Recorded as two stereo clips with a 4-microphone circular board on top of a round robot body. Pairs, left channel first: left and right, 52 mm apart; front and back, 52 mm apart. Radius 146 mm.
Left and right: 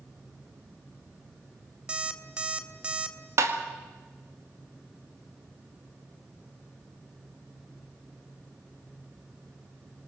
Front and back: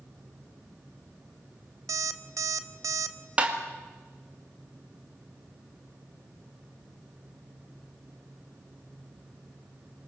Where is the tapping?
115° right, 2 m.